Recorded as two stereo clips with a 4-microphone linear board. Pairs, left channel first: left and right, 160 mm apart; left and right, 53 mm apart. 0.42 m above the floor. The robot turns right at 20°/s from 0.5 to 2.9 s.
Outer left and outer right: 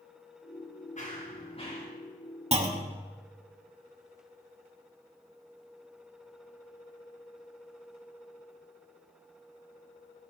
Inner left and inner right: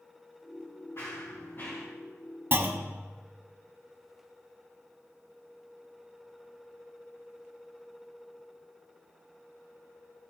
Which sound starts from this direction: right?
A clunk, at 2.5 s.